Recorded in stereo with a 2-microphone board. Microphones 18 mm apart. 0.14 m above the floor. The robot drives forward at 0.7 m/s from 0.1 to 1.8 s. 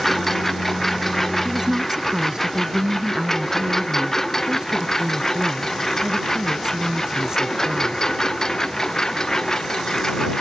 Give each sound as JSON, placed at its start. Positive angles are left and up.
{"t": 0.0, "sound": "a lawn mower", "side_deg": 15}
{"t": 1.4, "sound": "a woman speaking", "side_deg": -35}